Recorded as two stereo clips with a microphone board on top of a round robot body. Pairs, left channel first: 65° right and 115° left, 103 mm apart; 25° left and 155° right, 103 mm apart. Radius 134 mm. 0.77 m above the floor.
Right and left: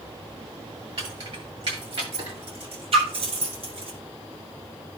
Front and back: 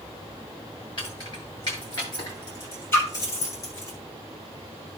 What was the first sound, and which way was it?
Keys jangling, 70° left.